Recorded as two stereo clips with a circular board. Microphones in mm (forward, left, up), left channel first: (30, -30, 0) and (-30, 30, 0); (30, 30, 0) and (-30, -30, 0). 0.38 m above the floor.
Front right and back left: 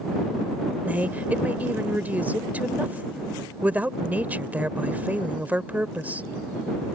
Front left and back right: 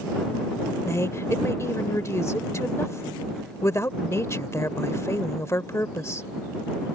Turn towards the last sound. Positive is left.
turn(degrees=75)